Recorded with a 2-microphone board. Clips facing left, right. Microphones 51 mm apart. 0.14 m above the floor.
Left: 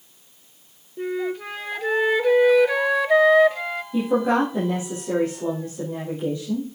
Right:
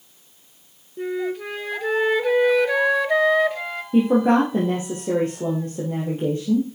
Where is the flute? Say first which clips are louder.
Right 1 dB; centre (ahead or behind), 0.6 m.